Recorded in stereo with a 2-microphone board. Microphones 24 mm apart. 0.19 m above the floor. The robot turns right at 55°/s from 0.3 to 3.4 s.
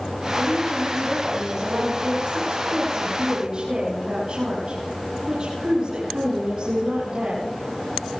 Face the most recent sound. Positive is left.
turn(degrees=-40)